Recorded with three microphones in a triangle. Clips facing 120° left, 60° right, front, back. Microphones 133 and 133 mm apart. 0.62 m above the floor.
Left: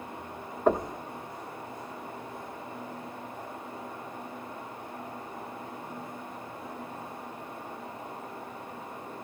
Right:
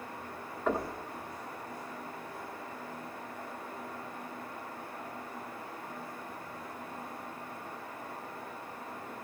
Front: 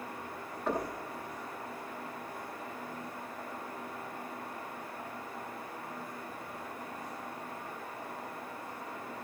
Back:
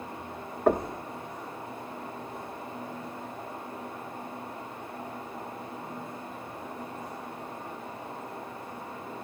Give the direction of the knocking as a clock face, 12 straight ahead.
6 o'clock.